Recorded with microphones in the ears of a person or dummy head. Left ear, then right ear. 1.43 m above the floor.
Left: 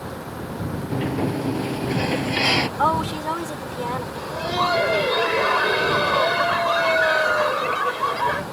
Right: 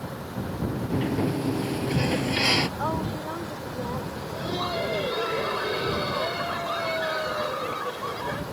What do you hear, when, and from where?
0.9 s a sliding door: 10° left (ahead or behind)
2.8 s a woman speaking: 65° left (ahead or behind)
4.2 s laughter: 35° left (ahead or behind)